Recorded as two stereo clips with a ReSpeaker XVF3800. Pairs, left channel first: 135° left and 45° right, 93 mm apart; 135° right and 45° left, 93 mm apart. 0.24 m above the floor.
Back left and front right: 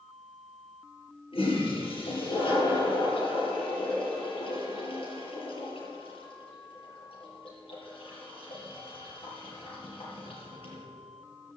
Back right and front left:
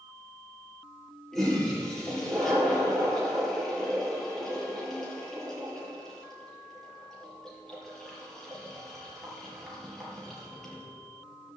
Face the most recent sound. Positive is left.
turn(degrees=140)